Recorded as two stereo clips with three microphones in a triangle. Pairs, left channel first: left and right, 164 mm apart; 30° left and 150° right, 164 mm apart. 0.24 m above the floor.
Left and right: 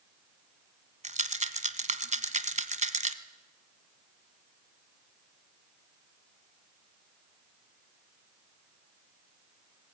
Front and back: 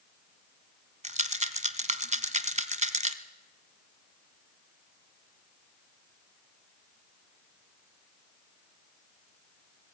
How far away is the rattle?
About 1.0 m.